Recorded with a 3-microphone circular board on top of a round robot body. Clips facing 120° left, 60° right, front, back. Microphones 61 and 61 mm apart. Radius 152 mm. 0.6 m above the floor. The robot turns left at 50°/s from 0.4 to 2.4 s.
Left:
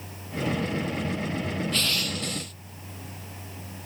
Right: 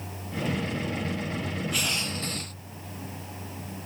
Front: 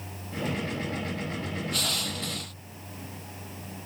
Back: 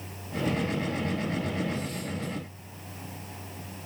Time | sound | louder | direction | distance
1.7 | crushing | left 1 dB, front 1 dB | 20° left | ?